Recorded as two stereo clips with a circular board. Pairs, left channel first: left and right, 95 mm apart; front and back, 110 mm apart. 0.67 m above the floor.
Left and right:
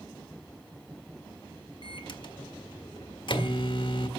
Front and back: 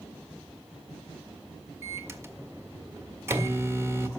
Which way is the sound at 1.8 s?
115° left.